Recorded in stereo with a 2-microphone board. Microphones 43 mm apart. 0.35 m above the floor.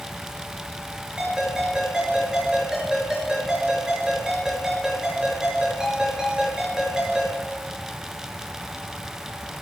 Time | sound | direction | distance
1.2 | a ringtone | 15° right (ahead or behind) | 4 m